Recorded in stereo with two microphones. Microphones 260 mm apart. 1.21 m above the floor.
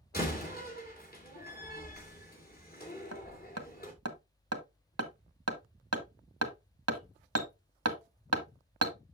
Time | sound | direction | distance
0.1 | a door slam | 40° left (ahead or behind) | 2.5 m
3.1 | hammering | 70° right (ahead or behind) | 1.2 m